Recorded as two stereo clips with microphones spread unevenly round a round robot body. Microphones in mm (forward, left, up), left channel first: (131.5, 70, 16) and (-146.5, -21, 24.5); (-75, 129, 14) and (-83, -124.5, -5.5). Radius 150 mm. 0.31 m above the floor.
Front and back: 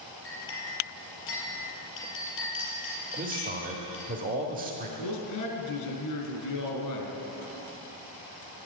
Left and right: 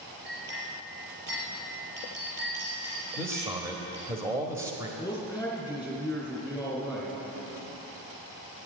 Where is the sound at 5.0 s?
5° right, 3.5 m.